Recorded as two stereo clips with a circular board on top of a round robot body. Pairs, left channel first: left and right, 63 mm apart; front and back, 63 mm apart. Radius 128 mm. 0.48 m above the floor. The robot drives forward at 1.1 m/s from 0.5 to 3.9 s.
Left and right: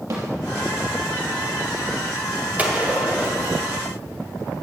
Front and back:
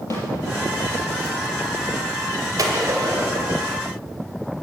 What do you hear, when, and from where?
0.1 s a snare drum: 45° right, 3.5 m
2.6 s a gunshot: 155° right, 2.0 m; by 3.8 s 165° right, 3 m